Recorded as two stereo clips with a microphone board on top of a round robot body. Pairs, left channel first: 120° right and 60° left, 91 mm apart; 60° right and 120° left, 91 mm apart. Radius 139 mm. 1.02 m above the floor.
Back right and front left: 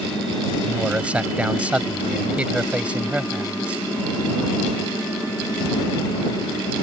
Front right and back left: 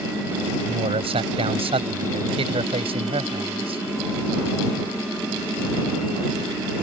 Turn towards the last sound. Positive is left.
turn(degrees=140)